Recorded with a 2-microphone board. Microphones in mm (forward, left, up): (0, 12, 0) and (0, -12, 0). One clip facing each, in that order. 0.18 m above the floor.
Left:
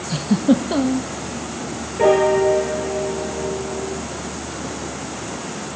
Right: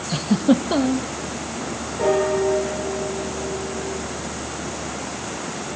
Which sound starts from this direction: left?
A piano, at 2.0 s.